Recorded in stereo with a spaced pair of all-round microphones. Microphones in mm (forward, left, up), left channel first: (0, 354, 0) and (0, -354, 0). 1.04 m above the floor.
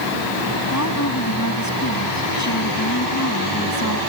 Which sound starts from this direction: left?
A woman speaking, at 0.7 s.